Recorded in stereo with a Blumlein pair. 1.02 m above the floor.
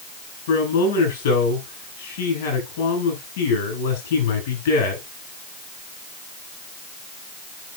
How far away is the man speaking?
About 6.5 m.